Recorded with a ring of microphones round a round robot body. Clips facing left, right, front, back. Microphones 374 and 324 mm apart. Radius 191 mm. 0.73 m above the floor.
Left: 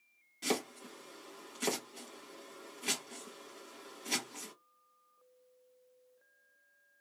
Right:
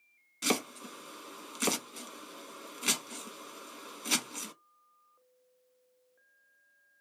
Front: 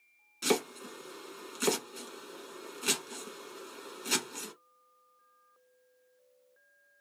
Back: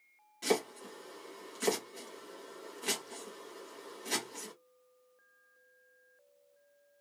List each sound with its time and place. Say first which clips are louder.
0.4 s chopping: right 3 dB, front 2 dB; 60° right, 1.0 m